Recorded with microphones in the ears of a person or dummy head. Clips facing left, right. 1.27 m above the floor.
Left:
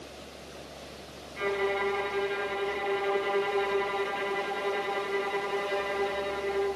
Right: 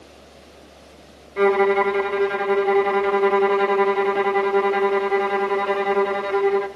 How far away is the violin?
About 0.7 m.